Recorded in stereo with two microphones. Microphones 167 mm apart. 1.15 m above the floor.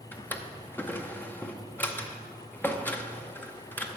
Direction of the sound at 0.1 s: 10° left (ahead or behind).